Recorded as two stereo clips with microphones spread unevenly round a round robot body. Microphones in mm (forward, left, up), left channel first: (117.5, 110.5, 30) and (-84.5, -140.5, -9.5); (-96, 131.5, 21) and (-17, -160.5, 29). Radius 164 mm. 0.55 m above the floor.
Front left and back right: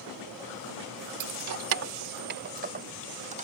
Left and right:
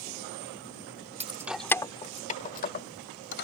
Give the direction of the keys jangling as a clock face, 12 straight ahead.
5 o'clock.